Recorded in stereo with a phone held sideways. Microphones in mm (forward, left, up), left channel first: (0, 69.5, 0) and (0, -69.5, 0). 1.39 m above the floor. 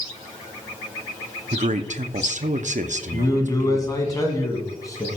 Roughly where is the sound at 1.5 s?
Right.